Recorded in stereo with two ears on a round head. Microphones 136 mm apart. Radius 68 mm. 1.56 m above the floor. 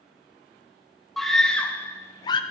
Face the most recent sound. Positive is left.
turn(degrees=30)  # may be behind; listen again after turning